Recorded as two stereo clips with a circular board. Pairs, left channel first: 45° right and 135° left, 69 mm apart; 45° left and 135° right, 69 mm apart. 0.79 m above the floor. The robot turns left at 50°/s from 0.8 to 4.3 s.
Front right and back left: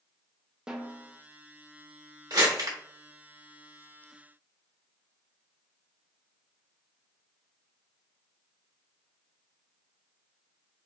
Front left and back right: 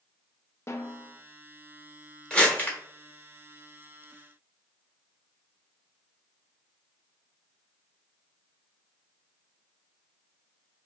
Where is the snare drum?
60° left, 0.5 m; by 1.1 s 45° left, 0.5 m.